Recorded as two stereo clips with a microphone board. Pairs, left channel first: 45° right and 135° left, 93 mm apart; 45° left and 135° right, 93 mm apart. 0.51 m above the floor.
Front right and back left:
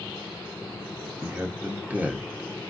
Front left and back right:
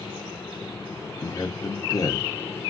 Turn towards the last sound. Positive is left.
turn(degrees=70)